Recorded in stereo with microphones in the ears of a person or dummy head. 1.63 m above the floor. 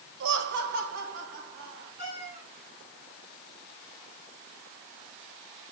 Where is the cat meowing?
15° right (ahead or behind), 6 m.